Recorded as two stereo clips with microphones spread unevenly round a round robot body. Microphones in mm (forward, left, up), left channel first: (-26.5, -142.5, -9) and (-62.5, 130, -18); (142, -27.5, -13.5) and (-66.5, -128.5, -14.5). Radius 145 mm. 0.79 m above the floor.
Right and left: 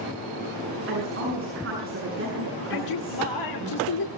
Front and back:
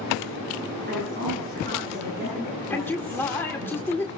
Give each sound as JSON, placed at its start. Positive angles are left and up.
{"t": 0.9, "sound": "a woman speaking", "azimuth_deg": 145, "distance_m": 8.5}
{"t": 2.7, "sound": "a man speaking", "azimuth_deg": -55, "distance_m": 2.0}